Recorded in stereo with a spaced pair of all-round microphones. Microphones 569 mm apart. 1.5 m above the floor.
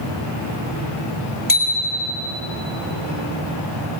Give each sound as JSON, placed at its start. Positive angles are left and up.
{"t": 1.5, "sound": "a bicycle bell", "side_deg": 35, "distance_m": 3.0}